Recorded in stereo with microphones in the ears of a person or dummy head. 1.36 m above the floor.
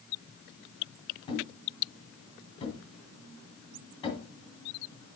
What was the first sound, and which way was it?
A thud, 25° left (ahead or behind).